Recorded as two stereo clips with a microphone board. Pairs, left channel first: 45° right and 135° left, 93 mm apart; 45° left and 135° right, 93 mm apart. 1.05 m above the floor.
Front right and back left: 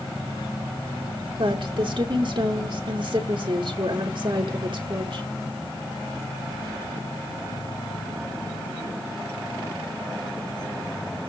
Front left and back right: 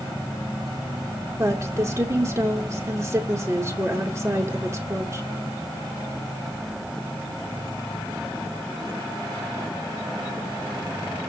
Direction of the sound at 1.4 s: 165° left.